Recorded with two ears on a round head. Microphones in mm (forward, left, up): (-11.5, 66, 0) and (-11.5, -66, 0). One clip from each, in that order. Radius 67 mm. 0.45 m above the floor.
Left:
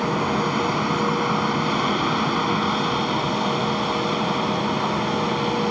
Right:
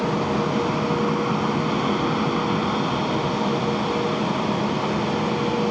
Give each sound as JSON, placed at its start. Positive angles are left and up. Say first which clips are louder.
{"t": 0.0, "sound": "an aircraft", "louder": "left 1 dB", "side_deg": 45}